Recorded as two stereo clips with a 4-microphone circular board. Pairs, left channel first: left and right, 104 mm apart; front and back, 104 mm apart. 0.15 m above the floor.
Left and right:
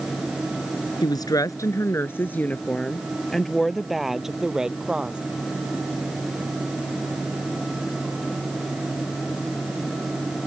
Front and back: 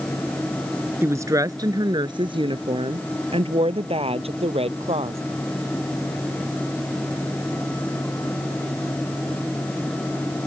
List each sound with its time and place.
1.0 s a woman speaking: 120° left; by 5.2 s 170° right